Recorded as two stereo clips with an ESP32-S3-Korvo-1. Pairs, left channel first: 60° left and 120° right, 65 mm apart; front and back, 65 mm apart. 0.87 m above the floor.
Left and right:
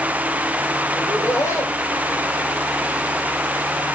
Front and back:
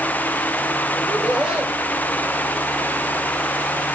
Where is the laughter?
100° left, 5 m.